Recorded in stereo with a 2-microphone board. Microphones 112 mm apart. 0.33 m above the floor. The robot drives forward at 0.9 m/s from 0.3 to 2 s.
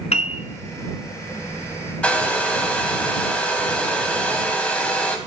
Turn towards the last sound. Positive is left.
turn(degrees=10)  # may be behind; listen again after turning